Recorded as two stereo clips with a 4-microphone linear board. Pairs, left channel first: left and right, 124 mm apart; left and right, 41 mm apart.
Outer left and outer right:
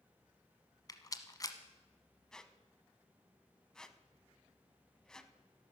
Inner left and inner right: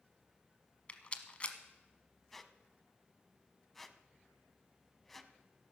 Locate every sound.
0.9 s a rattle: 30° left (ahead or behind), 1.0 m
2.3 s a squeak: 5° left (ahead or behind), 0.7 m